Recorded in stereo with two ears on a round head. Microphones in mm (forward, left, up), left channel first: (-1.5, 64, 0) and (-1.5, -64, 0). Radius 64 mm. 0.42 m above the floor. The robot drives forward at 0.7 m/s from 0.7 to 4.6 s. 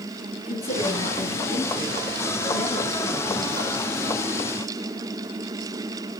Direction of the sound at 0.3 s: 40° left (ahead or behind).